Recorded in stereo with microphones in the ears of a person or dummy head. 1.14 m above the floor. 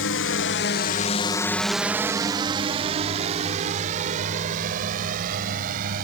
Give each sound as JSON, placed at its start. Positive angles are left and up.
{"t": 0.0, "sound": "a drone", "side_deg": 65}